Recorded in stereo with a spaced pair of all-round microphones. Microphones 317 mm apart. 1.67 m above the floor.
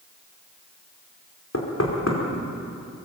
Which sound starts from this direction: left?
Knocking, at 1.5 s.